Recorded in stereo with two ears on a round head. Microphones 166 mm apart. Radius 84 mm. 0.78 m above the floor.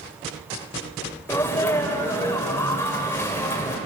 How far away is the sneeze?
About 3 m.